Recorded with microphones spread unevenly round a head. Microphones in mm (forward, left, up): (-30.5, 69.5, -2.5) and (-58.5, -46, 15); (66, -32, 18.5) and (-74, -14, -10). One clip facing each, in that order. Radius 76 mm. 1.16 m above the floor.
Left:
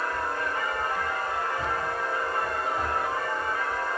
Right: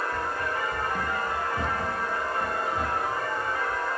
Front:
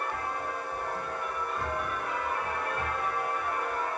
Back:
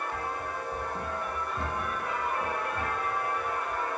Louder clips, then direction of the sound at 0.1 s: Even, even; 75° right.